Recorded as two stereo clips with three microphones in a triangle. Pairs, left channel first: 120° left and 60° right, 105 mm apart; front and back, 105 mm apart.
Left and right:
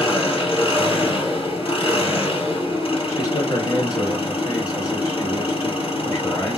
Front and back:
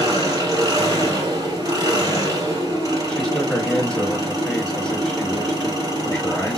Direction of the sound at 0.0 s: 135° left.